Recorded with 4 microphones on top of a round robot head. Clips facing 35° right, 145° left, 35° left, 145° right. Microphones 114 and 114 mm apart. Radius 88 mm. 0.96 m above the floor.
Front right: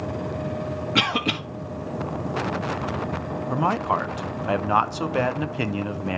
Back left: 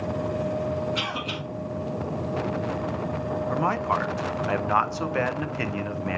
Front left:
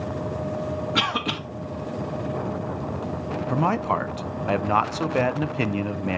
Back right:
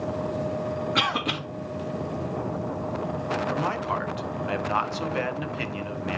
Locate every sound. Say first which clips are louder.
0.9 s a cough: front right 6 dB, front left 1 dB; 50° right, 1.9 m
3.5 s a man speaking: front right 3 dB, front left 4 dB; 30° left, 0.7 m